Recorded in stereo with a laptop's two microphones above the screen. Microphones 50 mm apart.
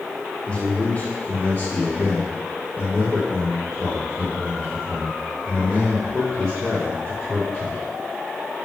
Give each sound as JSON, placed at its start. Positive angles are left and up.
{"t": 0.5, "sound": "a man speaking", "side_deg": 20, "distance_m": 1.0}